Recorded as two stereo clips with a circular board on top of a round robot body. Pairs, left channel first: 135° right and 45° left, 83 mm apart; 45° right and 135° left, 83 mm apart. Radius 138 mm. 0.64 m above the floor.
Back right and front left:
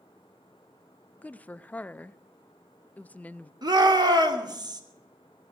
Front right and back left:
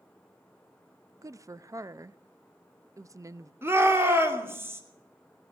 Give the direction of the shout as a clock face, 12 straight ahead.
10 o'clock.